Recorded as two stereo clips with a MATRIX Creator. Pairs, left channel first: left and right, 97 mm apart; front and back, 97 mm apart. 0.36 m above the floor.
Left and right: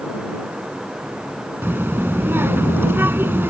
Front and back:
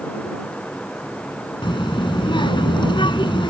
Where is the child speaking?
25° right.